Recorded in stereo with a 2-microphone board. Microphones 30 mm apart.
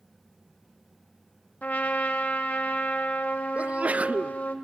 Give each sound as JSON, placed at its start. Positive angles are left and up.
{"t": 1.6, "sound": "a trumpet", "side_deg": 70, "distance_m": 1.4}
{"t": 3.5, "sound": "a sneeze", "side_deg": -50, "distance_m": 0.5}